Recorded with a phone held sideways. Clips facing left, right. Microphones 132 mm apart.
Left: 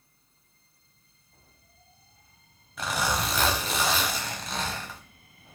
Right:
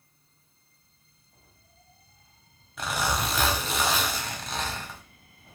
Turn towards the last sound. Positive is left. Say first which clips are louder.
# even
turn(degrees=0)  # may be behind; listen again after turning